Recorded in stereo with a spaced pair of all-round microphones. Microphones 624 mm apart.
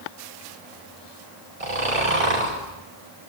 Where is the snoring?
65° right (ahead or behind), 6 m.